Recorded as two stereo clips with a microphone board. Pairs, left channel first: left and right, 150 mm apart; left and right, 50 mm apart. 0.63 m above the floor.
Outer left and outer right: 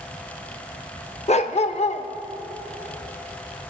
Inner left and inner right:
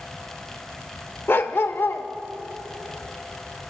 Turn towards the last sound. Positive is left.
turn(degrees=45)  # may be behind; listen again after turning